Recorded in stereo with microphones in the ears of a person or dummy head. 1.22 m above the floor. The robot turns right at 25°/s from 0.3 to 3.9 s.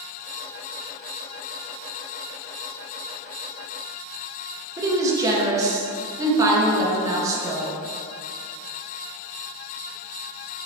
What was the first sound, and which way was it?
A woman speaking, 15° right (ahead or behind).